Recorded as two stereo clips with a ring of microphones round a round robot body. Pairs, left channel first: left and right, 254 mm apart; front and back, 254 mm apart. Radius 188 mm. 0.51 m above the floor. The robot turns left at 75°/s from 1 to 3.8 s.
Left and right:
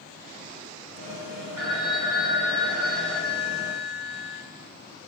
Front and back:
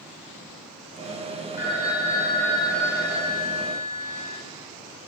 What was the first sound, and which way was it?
A phone ringing, 65° right.